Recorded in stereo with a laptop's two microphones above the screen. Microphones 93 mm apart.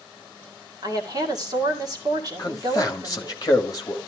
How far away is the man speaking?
About 1.3 m.